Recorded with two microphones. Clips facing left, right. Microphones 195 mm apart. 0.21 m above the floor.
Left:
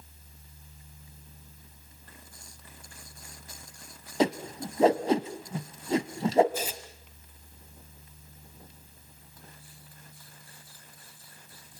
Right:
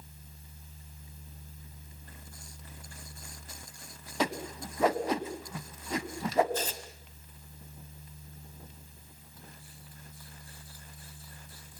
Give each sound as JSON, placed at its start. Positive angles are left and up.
{"t": 4.2, "sound": "a whoosh", "side_deg": 30, "distance_m": 1.2}
{"t": 6.5, "sound": "tearing paper", "side_deg": 10, "distance_m": 1.3}